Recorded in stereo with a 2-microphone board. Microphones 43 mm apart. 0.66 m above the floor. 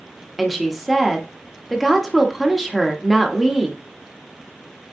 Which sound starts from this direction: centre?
A woman speaking, at 0.4 s.